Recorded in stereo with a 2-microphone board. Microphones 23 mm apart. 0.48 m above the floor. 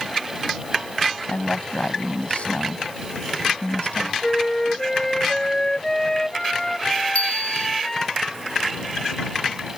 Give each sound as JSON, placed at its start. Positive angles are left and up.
{"t": 1.3, "sound": "a woman speaking", "side_deg": 65}
{"t": 4.2, "sound": "a flute", "side_deg": 15}
{"t": 7.2, "sound": "a bicycle bell", "side_deg": 80}